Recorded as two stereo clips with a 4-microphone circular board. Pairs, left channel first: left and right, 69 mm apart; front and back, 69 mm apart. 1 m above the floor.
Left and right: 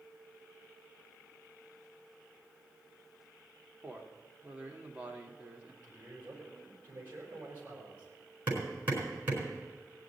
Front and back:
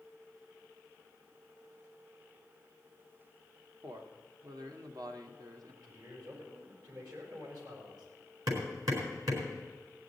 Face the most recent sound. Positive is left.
turn(degrees=-155)